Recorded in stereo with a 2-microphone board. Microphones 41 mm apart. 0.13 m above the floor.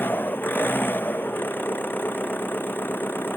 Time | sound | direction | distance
0.0 | an engine running | 55° left (ahead or behind) | ?